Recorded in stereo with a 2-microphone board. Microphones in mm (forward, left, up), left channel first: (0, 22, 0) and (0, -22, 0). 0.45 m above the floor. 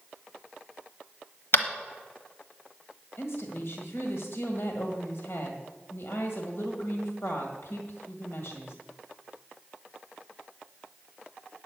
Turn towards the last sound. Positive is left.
turn(degrees=60)  # may be behind; listen again after turning